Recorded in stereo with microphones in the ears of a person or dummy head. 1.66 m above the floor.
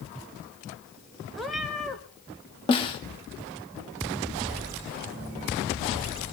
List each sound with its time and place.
1.4 s a cat meowing: centre (ahead or behind), 1.5 m
2.7 s a snare drum: 25° left (ahead or behind), 1.9 m